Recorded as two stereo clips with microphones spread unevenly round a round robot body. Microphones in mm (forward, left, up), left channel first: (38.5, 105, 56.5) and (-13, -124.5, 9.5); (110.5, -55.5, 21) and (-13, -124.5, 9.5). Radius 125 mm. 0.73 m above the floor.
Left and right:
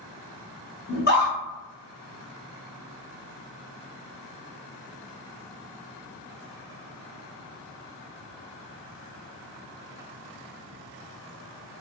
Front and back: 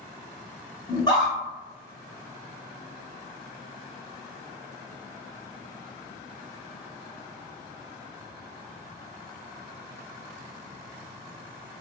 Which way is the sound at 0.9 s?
70° left.